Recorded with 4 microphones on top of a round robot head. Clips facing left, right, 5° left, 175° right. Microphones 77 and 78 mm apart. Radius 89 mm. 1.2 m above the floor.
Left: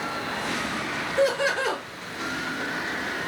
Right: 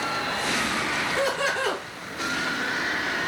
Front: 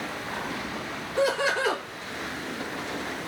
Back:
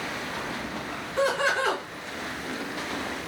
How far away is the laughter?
About 1.7 m.